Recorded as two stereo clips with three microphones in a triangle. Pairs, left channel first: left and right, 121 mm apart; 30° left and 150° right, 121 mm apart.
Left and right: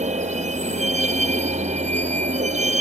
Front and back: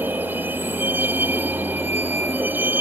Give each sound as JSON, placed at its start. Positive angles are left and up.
{"t": 0.0, "sound": "a vehicle", "azimuth_deg": -75}